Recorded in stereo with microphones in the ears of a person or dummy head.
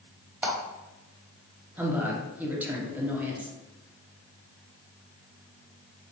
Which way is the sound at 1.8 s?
5° right (ahead or behind).